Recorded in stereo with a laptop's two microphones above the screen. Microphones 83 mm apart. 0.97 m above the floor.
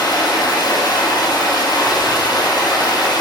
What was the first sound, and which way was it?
Running water, 55° left (ahead or behind).